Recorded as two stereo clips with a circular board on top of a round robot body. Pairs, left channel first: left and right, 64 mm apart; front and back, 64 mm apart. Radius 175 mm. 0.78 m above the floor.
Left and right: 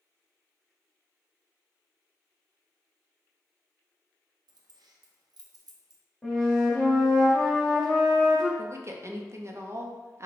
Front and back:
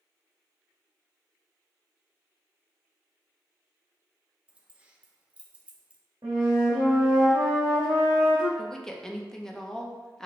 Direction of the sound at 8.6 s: 80° right.